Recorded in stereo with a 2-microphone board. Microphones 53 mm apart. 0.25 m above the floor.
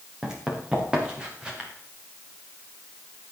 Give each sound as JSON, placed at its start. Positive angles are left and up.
{"t": 0.2, "sound": "running footsteps", "side_deg": -10, "distance_m": 4.5}